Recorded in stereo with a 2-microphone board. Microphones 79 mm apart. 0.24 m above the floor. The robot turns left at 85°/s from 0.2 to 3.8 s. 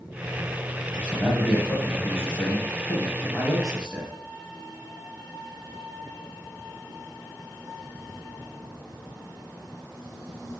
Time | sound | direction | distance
0.9 | a man speaking | 135° right | 1.7 m